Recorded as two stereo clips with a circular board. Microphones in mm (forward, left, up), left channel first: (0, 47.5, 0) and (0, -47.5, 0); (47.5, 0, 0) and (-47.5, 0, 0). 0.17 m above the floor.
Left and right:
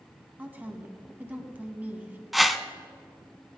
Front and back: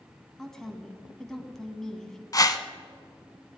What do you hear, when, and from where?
0.4 s a woman speaking: 75° right, 1.4 m
2.3 s a whoosh: straight ahead, 0.7 m